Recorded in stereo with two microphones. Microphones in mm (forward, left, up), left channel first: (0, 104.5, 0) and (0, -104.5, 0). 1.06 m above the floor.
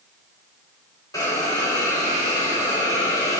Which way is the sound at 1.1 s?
20° left (ahead or behind).